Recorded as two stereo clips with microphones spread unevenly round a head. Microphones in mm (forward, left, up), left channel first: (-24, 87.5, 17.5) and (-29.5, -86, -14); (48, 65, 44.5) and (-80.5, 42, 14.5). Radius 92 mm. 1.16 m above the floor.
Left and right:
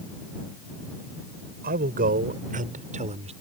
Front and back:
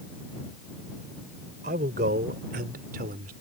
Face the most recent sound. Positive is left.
turn(degrees=-145)